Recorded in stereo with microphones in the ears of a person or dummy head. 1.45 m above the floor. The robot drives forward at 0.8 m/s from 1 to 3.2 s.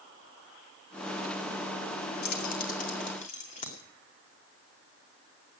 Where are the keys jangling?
55° left (ahead or behind), 1.5 m; by 3.8 s 40° left (ahead or behind), 2 m.